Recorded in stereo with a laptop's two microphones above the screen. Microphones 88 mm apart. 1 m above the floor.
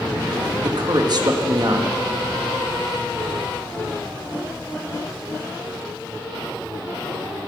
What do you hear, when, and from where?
0.6 s a man speaking: 50° right (ahead or behind), 1.5 m